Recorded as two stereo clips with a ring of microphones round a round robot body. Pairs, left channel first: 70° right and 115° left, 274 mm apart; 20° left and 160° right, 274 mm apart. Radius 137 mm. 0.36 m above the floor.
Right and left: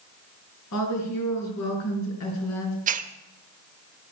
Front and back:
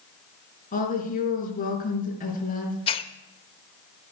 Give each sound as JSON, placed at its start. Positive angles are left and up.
{"t": 0.7, "sound": "a woman speaking", "azimuth_deg": -40, "distance_m": 4.5}
{"t": 2.9, "sound": "a hiss", "azimuth_deg": 75, "distance_m": 0.8}